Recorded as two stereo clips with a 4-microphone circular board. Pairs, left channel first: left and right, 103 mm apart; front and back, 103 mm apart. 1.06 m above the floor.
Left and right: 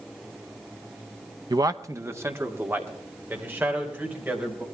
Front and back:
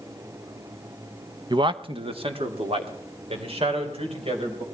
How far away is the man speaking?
About 0.6 m.